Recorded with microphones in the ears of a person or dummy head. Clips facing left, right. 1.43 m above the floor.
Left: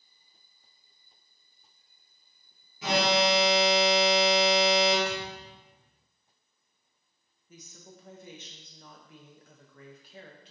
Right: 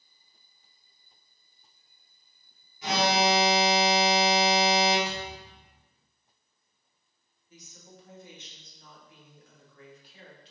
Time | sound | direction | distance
2.8 | an alarm | 55° left (ahead or behind) | 0.9 m
5.0 | a thud | centre (ahead or behind) | 0.7 m
7.5 | a woman speaking | 50° left (ahead or behind) | 0.5 m